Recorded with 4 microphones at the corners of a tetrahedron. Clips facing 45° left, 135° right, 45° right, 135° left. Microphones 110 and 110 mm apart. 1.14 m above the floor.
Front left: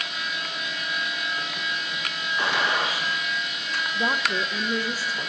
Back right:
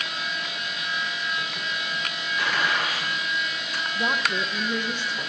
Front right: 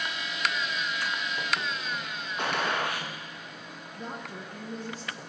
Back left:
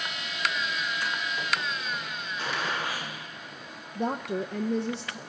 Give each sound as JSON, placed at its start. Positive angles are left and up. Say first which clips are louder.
{"t": 2.4, "sound": "a gunshot", "louder": "front left 1 dB, front right 3 dB", "azimuth_deg": -20, "distance_m": 1.3}
{"t": 4.0, "sound": "a woman speaking", "louder": "even, back left 11 dB", "azimuth_deg": 125, "distance_m": 0.5}